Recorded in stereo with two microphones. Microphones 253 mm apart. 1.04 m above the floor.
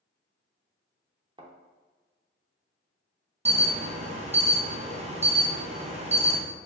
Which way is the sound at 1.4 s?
20° right (ahead or behind).